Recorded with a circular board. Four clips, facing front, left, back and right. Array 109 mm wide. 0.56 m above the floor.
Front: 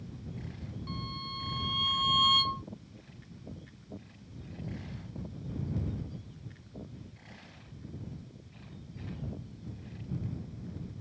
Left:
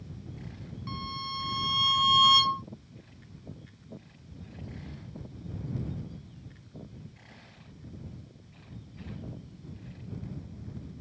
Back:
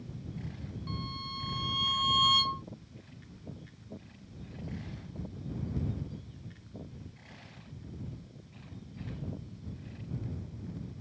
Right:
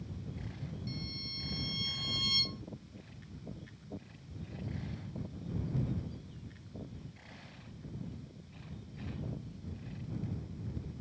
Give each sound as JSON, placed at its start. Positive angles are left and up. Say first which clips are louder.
{"t": 0.9, "sound": "a violin", "louder": "left 8 dB, even", "azimuth_deg": 90}